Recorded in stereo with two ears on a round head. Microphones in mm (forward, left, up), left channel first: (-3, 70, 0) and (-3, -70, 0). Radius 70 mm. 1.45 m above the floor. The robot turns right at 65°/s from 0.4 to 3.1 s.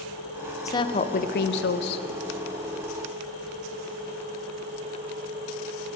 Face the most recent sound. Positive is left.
turn(degrees=180)